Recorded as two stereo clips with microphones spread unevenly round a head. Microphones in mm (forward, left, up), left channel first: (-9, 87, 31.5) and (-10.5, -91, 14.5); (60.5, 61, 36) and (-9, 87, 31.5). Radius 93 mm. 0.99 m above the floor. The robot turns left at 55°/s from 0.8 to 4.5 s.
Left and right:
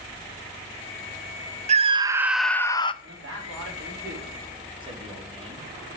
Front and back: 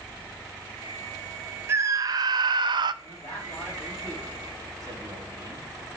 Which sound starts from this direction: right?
A man speaking, at 3.0 s.